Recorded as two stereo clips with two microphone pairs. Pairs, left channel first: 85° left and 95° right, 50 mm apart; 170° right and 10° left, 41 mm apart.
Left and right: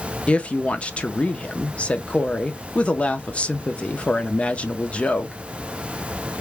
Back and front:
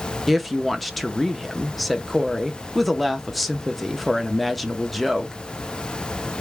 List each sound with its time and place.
0.3 s a woman speaking: 110° left, 0.6 m